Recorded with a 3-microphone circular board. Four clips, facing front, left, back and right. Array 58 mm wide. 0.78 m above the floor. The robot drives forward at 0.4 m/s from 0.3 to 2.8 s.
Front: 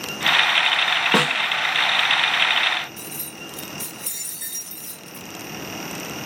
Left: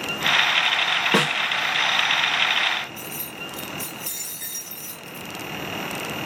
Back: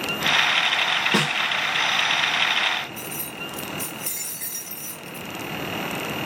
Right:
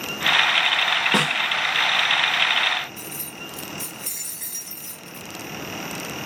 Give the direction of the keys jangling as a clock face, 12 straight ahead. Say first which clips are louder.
Left 2 dB, back 3 dB; 6 o'clock.